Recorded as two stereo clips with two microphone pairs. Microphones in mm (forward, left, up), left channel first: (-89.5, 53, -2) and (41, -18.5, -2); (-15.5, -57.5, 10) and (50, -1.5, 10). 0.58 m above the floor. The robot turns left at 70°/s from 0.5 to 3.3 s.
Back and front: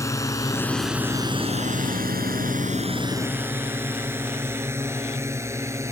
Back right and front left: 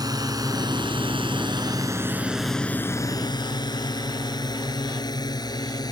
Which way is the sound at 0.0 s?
80° left.